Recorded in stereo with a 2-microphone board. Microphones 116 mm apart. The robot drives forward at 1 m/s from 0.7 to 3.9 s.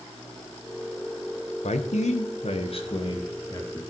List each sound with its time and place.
1.6 s a man speaking: 75° left (ahead or behind), 1.2 m; by 3.8 s 30° left (ahead or behind), 2 m